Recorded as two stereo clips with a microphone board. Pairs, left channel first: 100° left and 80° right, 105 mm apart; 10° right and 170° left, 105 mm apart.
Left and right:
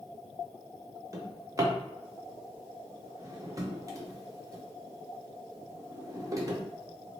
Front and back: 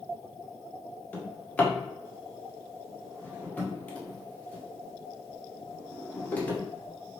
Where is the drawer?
70° right, 0.7 m.